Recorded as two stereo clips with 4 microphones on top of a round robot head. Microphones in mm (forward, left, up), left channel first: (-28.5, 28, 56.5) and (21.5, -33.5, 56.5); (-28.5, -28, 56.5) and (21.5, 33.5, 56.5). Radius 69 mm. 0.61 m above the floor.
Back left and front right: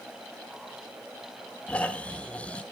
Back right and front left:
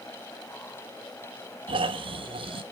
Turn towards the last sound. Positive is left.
turn(degrees=55)